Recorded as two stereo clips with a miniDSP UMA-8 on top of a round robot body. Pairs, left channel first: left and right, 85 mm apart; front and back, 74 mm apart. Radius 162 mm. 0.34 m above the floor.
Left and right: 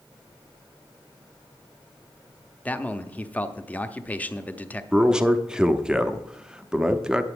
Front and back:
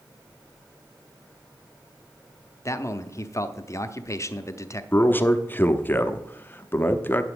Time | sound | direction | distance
2.6 | a man speaking | 25° left | 1.1 m
4.9 | a man speaking | 20° right | 1.1 m